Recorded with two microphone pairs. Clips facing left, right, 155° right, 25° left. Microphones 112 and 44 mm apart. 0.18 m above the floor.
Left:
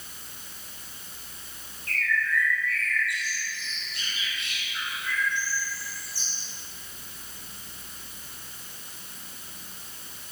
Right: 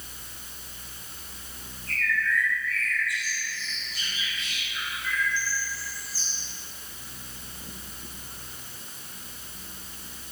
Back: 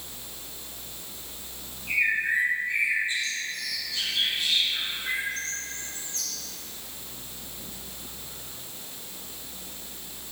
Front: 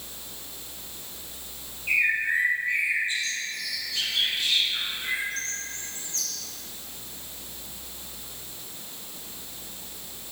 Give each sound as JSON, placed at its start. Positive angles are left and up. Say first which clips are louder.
{"t": 1.9, "sound": "a bird", "louder": "even, front 1 dB", "azimuth_deg": 65, "distance_m": 4.5}